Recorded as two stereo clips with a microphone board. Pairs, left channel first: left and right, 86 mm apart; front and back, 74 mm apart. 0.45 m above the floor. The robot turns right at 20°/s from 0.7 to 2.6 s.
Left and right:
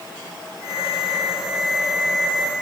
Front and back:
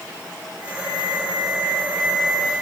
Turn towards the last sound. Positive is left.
No sound to turn to.